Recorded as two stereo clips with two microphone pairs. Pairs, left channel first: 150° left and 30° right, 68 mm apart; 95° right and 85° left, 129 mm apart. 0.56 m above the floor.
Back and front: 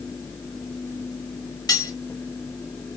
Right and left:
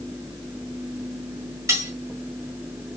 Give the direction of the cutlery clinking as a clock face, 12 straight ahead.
7 o'clock.